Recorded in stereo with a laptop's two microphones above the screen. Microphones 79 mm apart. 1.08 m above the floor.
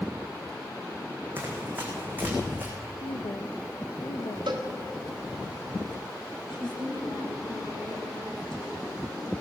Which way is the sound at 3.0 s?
70° left (ahead or behind).